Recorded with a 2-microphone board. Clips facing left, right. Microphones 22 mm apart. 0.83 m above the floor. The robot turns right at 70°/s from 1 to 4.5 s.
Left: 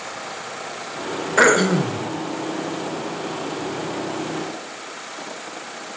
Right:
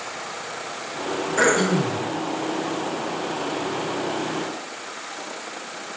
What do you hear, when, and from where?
1.4 s throat clearing: 140° left, 0.5 m; by 2.0 s 175° right, 0.5 m